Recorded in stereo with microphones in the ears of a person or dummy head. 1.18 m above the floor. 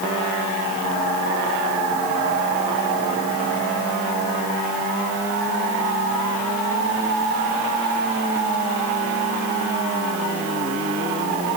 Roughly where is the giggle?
No giggle in this recording.